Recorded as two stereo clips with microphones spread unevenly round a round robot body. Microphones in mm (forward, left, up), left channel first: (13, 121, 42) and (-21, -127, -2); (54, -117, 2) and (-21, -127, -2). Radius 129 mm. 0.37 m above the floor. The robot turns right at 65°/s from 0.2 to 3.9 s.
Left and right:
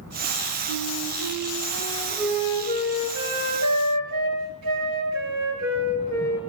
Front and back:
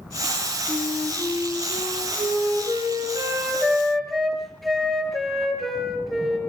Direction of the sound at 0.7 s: 70° left.